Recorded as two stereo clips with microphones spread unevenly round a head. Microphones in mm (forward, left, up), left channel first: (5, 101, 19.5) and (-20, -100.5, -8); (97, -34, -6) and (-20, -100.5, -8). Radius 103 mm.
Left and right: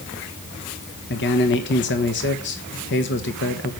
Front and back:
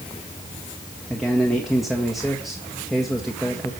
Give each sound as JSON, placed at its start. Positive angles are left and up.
{"t": 1.1, "sound": "a man speaking", "azimuth_deg": 120, "distance_m": 1.5}